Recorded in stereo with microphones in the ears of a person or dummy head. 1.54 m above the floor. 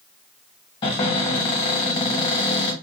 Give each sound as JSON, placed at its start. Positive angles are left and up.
{"t": 0.8, "sound": "a cupboard door", "side_deg": 30, "distance_m": 1.1}